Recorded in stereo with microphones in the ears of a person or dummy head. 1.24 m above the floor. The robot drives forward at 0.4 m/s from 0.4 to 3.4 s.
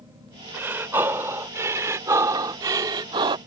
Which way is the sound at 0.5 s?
15° right (ahead or behind).